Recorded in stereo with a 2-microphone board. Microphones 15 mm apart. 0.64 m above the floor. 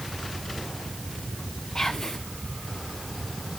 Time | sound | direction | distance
1.8 | whispering | 35° left (ahead or behind) | 0.8 m